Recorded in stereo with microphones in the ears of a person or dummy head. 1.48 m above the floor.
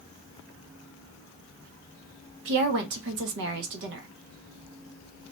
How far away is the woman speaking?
About 0.6 m.